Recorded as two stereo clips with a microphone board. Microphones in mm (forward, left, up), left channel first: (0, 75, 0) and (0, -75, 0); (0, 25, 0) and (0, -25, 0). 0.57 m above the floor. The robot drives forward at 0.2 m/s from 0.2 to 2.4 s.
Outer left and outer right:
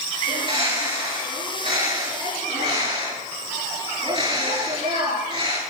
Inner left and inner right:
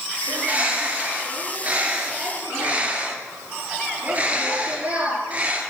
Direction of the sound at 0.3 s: 35° right (ahead or behind).